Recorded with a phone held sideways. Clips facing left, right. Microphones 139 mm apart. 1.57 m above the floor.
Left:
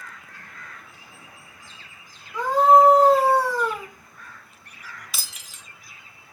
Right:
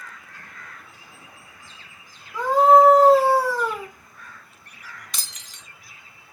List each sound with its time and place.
2.3 s a scream: 5° right (ahead or behind), 4 m
5.1 s breaking glass: 5° left (ahead or behind), 1.5 m